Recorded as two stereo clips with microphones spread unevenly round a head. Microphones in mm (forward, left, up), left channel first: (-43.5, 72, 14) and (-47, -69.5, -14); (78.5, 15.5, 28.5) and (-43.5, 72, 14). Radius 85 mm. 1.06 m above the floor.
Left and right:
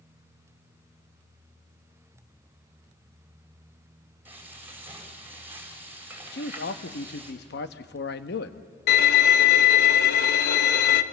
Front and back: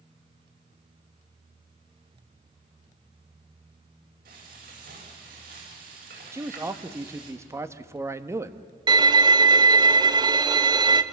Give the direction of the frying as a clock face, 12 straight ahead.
6 o'clock.